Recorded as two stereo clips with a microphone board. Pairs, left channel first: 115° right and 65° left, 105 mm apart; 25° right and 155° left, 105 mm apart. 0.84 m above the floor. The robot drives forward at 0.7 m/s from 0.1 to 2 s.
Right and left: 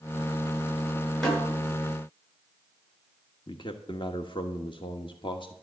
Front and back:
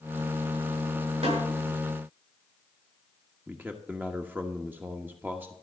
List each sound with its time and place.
1.2 s a snare drum: 165° left, 8 m
3.5 s a man speaking: 135° right, 1.3 m